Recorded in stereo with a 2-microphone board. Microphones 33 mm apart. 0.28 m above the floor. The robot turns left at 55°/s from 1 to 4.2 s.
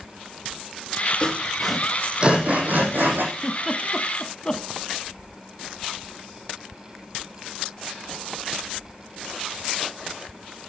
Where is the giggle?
15° right (ahead or behind), 0.9 m; by 4.6 s 25° left (ahead or behind), 0.9 m.